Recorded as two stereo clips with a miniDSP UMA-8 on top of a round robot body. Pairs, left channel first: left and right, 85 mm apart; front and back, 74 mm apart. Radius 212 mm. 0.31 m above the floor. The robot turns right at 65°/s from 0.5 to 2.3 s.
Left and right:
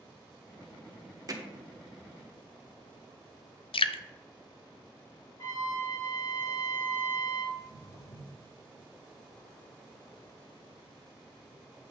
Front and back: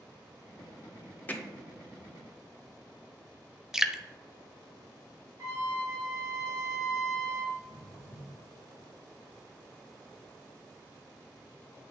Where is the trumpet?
135° left, 3.5 m.